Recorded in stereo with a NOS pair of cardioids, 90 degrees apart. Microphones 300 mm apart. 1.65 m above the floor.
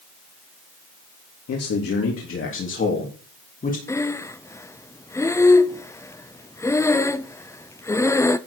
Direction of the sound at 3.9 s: 10° left.